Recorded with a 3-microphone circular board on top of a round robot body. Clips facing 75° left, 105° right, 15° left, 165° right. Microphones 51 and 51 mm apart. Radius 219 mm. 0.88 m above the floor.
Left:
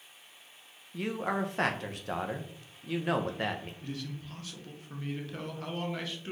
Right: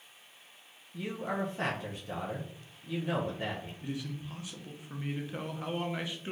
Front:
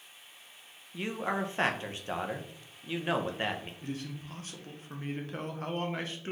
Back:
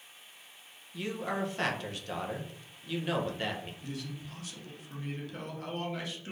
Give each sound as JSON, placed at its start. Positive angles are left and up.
{"t": 0.9, "sound": "a man speaking", "azimuth_deg": 75, "distance_m": 0.7}
{"t": 3.8, "sound": "a man speaking", "azimuth_deg": -30, "distance_m": 1.0}